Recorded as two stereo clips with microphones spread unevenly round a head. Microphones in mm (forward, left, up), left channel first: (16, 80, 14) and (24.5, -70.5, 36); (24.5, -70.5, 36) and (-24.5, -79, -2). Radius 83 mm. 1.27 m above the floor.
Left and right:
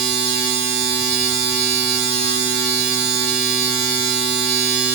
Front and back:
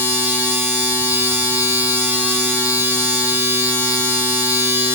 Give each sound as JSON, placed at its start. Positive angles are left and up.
{"t": 0.0, "sound": "a machine running", "azimuth_deg": -115, "distance_m": 7.5}